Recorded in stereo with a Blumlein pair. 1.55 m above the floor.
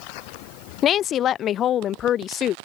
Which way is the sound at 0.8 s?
30° left.